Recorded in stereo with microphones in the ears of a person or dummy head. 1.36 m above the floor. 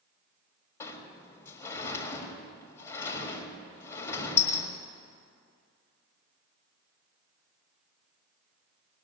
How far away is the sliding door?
About 1.6 m.